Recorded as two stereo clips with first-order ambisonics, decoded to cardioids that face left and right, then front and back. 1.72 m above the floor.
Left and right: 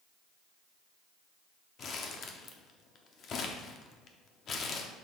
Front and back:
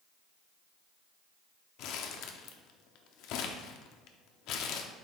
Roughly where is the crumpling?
Ahead left.